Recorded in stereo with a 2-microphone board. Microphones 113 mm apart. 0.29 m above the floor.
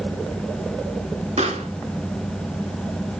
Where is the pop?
75° right (ahead or behind), 2.5 m.